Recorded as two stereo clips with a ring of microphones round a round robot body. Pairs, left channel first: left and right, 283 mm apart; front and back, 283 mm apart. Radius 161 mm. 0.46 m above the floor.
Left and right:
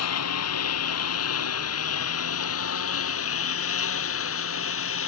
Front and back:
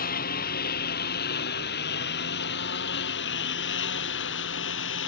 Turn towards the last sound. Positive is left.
turn(degrees=50)